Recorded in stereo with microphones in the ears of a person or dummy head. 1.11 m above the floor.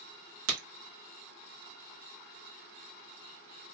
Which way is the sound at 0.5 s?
75° right (ahead or behind).